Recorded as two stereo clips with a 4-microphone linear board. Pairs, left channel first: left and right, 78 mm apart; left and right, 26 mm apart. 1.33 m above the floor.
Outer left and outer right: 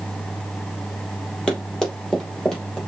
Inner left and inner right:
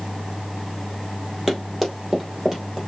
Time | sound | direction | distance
1.5 | running footsteps | 10° left (ahead or behind) | 2 m